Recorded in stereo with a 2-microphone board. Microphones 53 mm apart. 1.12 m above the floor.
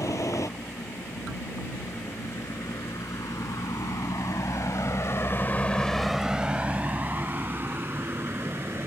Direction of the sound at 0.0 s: 70° left (ahead or behind).